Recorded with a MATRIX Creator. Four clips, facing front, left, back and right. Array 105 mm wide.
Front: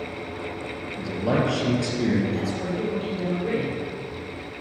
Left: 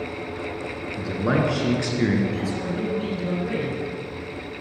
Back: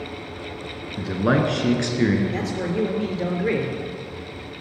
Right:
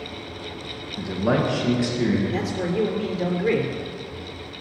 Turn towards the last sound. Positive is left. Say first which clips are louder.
# right 2 dB, back 2 dB
turn(degrees=-140)